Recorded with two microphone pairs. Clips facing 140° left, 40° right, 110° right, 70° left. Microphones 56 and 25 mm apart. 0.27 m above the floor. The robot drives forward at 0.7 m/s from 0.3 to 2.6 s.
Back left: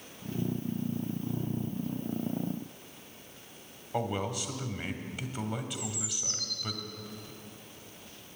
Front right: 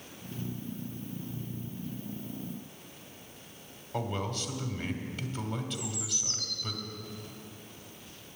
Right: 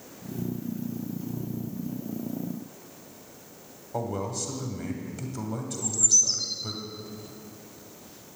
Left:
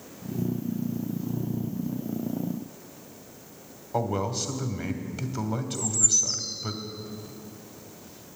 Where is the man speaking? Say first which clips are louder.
Back left 2 dB, left 3 dB; 70° left, 1.2 m.